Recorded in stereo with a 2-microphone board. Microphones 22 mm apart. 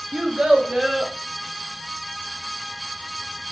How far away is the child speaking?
About 0.6 m.